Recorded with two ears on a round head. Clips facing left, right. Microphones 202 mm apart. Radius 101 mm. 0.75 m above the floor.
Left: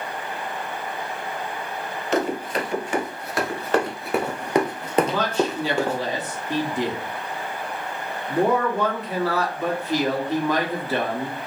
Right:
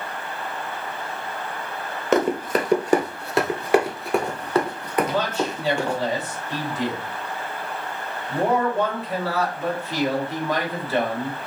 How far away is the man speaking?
About 2 m.